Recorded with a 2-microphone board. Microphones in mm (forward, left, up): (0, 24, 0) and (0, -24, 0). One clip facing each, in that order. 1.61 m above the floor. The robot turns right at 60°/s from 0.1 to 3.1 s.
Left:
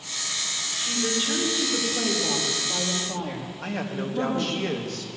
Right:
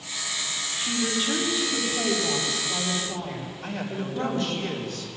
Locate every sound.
0.8 s a woman speaking: 30° right, 3.5 m; by 4.6 s 110° left, 3.5 m
3.6 s a man speaking: 80° left, 2 m